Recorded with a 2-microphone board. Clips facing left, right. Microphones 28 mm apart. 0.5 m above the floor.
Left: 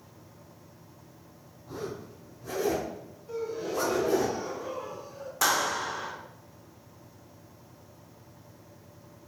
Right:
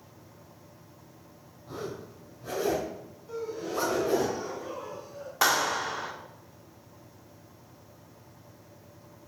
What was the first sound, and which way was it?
A zipper, 35° right (ahead or behind).